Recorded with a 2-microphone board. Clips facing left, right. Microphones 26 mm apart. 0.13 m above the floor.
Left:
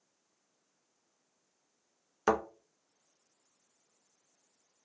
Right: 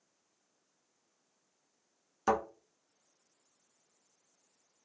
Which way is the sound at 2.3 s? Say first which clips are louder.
Left 1 dB; 25° left (ahead or behind).